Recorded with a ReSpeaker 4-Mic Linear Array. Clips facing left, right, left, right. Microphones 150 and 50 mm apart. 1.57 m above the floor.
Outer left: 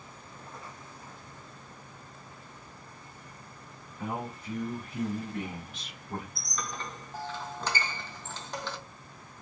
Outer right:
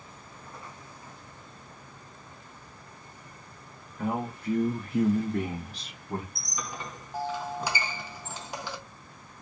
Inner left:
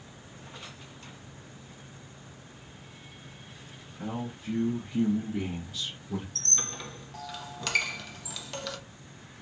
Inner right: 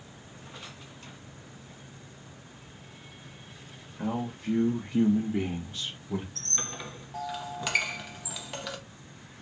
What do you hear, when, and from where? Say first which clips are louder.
4.0 s a man speaking: outer right 5 dB, inner right 4 dB; 60° right (ahead or behind), 0.9 m; by 6.2 s 15° right (ahead or behind), 1.1 m
6.3 s a squeak: even, even; 10° right (ahead or behind), 0.6 m